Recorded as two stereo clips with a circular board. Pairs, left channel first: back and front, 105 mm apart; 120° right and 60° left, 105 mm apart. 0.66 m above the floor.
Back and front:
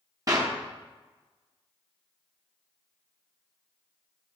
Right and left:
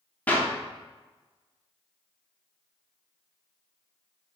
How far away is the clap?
About 1.1 m.